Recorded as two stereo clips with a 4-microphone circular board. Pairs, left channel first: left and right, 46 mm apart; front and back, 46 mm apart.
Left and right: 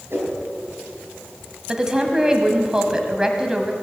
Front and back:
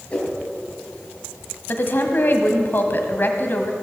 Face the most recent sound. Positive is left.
turn(degrees=-20)